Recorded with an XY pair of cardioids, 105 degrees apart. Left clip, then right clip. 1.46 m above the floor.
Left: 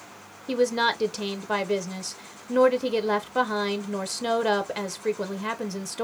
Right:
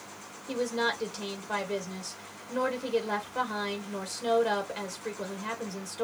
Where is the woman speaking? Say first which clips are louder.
Left 6 dB; 50° left, 1.1 m.